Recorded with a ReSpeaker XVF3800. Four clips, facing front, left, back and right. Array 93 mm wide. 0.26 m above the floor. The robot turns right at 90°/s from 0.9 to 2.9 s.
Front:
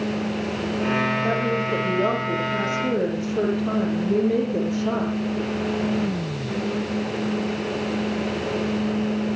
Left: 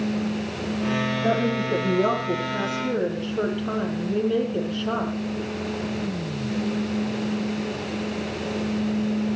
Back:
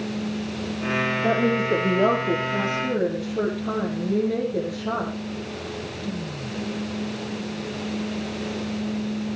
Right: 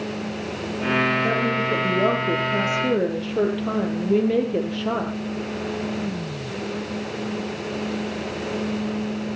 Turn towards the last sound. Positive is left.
turn(degrees=-70)